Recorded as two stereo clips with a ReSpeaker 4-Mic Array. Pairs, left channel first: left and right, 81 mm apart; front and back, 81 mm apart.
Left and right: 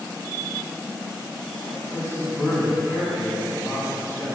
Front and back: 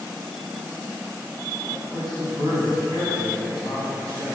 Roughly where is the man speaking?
Behind right.